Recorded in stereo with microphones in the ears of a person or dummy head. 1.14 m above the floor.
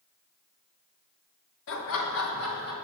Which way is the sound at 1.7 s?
70° left (ahead or behind).